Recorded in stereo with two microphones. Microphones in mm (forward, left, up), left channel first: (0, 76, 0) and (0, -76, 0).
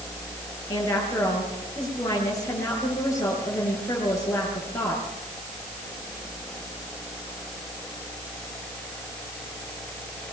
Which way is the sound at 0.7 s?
20° left (ahead or behind).